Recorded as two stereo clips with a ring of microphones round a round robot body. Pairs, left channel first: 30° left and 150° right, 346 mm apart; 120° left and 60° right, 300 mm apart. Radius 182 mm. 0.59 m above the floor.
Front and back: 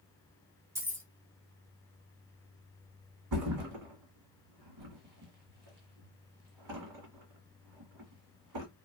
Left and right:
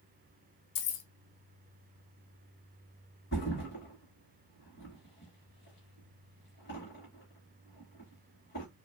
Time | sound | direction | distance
0.8 | keys jangling | 130° left | 0.5 m
3.3 | a thud | 175° left | 1.3 m